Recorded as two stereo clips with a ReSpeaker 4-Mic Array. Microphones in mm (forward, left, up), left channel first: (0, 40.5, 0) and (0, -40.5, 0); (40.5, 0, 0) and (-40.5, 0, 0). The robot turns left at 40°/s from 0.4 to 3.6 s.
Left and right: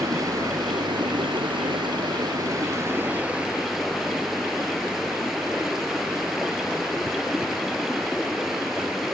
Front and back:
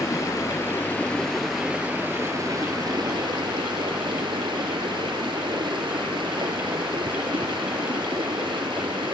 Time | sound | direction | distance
0.0 | running water | 50° right | ?